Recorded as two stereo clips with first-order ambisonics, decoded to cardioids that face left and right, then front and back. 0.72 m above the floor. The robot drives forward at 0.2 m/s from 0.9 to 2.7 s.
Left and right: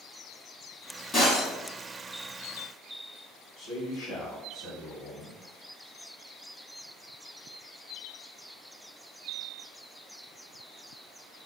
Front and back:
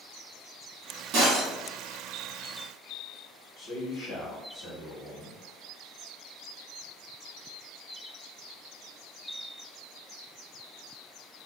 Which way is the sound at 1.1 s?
160° left.